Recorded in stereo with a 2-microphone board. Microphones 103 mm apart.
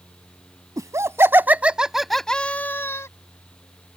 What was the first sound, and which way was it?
Laughter, 35° right (ahead or behind).